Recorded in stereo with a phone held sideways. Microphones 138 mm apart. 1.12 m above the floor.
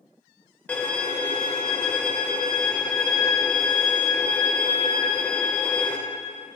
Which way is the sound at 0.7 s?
10° left (ahead or behind).